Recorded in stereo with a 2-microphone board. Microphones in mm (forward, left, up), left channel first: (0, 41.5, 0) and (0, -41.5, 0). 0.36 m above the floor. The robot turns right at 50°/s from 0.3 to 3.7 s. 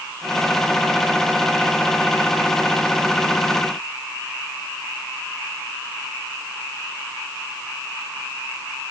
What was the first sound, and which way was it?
Only background noise.